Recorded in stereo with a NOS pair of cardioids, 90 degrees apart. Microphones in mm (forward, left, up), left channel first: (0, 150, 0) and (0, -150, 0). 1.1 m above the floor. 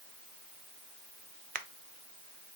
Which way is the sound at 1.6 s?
30° right.